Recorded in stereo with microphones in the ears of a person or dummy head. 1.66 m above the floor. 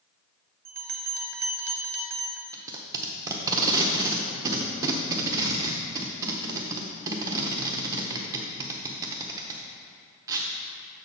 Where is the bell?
40° right (ahead or behind), 0.6 m.